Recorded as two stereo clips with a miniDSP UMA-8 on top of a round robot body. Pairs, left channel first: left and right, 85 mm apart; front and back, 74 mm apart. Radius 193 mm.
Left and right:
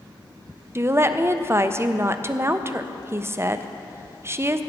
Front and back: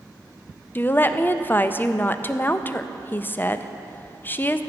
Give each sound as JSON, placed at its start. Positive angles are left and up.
{"t": 0.8, "sound": "a woman speaking", "azimuth_deg": -50, "distance_m": 0.6}